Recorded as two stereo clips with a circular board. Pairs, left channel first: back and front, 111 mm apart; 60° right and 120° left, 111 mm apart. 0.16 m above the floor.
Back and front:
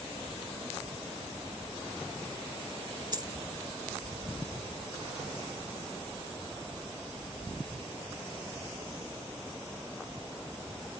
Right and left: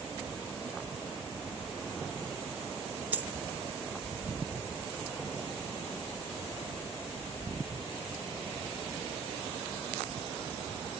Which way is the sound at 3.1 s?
45° left.